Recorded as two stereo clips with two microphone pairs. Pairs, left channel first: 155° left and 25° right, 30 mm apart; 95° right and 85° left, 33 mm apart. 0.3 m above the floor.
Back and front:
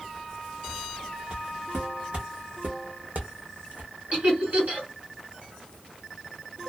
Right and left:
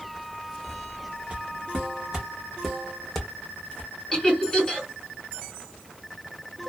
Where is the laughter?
20° right, 1.9 m.